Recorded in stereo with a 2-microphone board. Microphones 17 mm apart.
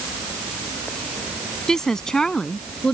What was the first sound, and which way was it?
A woman speaking, 35° left (ahead or behind).